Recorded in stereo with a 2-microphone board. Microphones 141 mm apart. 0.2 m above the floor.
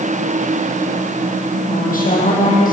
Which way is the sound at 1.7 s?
75° left (ahead or behind).